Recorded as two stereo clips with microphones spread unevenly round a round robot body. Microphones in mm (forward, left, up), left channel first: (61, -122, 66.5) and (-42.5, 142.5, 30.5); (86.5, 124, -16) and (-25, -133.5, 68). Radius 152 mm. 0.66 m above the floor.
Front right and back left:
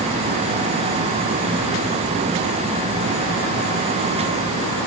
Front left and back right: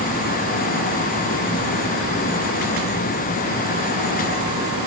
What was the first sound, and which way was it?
Only background noise.